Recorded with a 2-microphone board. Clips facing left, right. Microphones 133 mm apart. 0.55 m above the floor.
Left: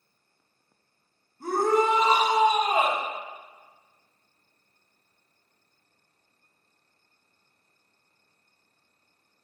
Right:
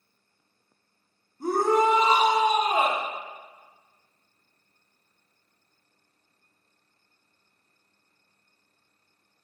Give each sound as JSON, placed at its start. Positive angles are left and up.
{"t": 1.4, "sound": "a shout", "side_deg": -15, "distance_m": 0.6}